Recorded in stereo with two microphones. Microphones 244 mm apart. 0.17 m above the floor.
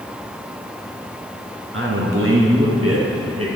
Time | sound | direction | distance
1.7 | a man speaking | 55° right (ahead or behind) | 2.0 m